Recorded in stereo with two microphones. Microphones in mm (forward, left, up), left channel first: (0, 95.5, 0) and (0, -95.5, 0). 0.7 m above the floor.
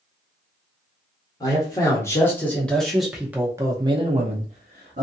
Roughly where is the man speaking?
Centre.